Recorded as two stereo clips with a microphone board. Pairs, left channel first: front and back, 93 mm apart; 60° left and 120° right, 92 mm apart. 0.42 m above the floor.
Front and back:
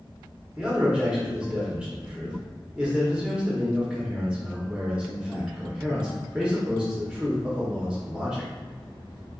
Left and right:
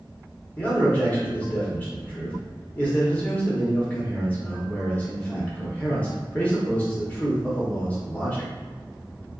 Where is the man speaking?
110° left, 1.0 m.